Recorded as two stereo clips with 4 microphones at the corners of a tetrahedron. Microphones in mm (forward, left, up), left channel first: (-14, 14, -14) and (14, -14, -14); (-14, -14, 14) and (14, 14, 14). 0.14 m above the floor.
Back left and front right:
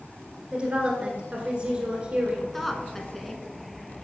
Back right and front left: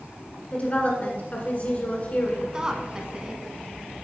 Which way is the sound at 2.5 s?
65° left.